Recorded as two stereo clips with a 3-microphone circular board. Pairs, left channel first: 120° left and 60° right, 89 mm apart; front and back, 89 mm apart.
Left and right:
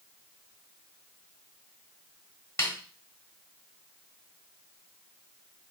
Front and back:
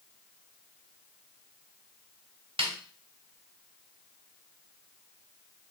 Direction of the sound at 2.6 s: Straight behind.